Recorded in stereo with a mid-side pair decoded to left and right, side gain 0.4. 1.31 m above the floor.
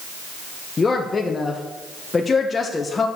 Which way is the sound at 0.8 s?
40° left.